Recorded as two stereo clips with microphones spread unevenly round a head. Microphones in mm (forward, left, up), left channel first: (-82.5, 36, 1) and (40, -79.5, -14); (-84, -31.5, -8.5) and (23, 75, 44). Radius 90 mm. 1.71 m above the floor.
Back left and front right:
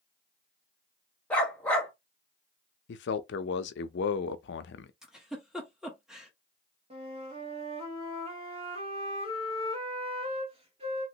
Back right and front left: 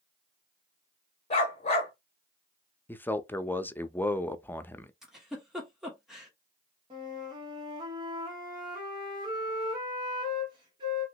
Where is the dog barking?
170° right, 1.1 m.